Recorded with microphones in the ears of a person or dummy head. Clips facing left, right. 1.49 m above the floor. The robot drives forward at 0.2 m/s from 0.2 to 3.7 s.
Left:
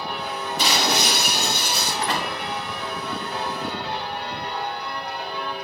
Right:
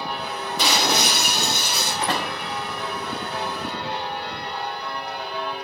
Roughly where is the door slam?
Right.